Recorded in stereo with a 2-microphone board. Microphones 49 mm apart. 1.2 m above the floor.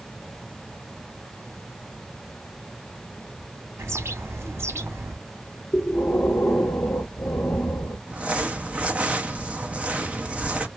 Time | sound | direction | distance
3.8 | a bird | 65° right (ahead or behind) | 0.9 m
5.7 | breathing | 50° left (ahead or behind) | 0.8 m
8.1 | crumpling | 25° right (ahead or behind) | 0.6 m